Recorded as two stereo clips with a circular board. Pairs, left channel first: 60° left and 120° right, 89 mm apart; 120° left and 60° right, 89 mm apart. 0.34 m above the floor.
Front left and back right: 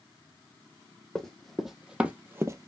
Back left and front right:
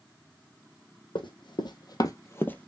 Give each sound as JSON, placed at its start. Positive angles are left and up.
{"t": 1.1, "sound": "running footsteps", "azimuth_deg": 145, "distance_m": 1.1}